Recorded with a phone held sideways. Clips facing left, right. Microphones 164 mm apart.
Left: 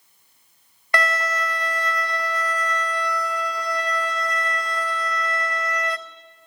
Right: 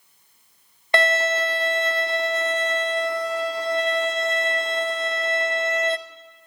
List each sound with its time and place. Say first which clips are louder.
0.9 s a violin: right 4 dB; 25° right (ahead or behind), 0.7 m